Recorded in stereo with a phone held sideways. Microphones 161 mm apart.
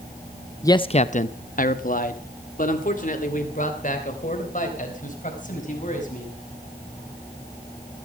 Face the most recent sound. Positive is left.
turn(degrees=55)  # may be behind; listen again after turning